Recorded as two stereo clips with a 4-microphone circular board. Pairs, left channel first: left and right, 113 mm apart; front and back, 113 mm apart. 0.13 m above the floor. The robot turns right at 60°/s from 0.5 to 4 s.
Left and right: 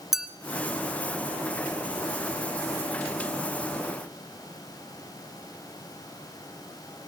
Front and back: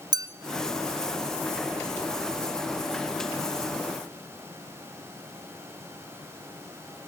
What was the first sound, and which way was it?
A clink, 175° right.